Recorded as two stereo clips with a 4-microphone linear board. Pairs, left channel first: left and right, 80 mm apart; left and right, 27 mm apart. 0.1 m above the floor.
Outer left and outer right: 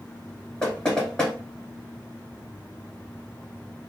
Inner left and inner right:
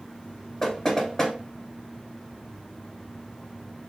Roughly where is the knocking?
Centre.